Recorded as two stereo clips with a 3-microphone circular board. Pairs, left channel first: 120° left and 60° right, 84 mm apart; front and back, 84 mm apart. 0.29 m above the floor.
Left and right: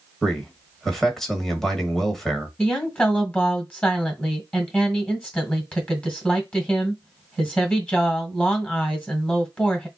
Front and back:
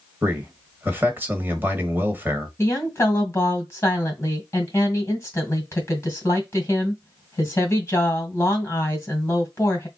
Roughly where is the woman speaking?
Ahead left.